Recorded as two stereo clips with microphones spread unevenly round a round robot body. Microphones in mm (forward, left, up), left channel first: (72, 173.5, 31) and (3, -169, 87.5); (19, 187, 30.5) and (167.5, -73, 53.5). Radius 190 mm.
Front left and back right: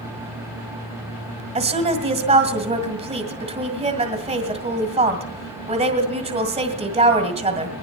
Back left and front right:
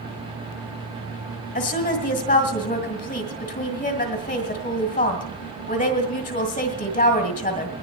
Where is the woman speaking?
Straight behind, 2.0 m.